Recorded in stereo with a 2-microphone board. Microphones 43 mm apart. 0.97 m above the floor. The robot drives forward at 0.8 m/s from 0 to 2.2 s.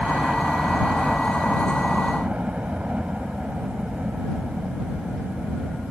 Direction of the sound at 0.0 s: 30° right (ahead or behind).